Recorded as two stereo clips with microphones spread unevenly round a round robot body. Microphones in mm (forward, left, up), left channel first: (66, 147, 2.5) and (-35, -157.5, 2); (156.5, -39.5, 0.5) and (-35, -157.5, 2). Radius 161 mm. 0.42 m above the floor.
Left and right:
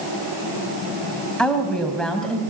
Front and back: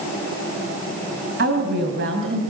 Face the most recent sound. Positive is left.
turn(degrees=160)